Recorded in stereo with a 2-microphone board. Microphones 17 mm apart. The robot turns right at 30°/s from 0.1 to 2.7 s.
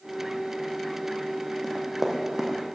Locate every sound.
1.6 s running footsteps: 10° right (ahead or behind), 3 m; by 2.6 s 35° right (ahead or behind), 3 m